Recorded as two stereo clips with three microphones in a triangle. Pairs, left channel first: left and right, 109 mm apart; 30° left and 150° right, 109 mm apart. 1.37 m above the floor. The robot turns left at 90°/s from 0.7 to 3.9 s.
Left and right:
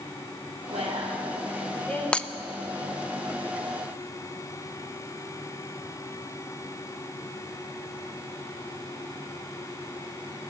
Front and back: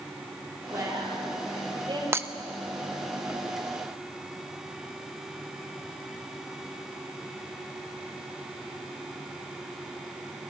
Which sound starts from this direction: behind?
Breaking glass, at 2.1 s.